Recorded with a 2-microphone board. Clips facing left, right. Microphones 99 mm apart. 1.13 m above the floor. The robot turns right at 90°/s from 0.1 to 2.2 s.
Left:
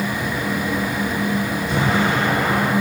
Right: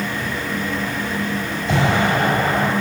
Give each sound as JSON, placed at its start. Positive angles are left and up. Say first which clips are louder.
{"t": 1.7, "sound": "an explosion", "louder": "right 3 dB", "azimuth_deg": -90, "distance_m": 5.5}